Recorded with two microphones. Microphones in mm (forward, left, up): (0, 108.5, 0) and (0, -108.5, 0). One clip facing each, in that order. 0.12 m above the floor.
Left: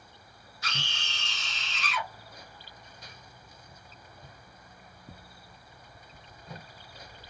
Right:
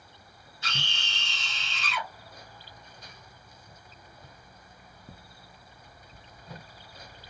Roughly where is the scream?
Right.